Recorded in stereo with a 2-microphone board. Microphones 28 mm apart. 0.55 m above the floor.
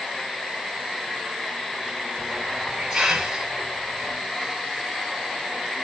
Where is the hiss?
25° right (ahead or behind), 4.5 m.